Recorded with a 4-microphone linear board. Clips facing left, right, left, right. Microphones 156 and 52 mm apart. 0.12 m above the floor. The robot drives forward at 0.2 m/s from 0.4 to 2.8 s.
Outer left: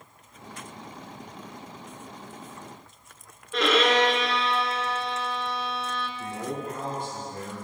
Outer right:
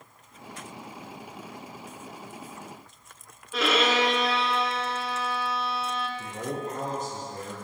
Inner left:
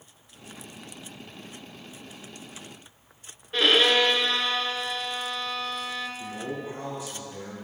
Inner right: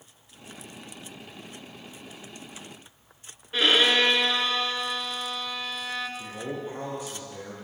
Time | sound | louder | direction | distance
3.5 | a violin | outer left 3 dB, inner left 1 dB | 5° right (ahead or behind) | 0.7 m
6.2 | a man speaking | even, even | 45° right (ahead or behind) | 3 m